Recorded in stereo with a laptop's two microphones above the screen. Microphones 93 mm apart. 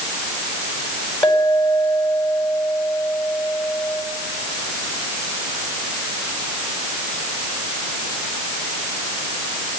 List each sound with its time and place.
1.2 s a clink: 20° left (ahead or behind), 5 m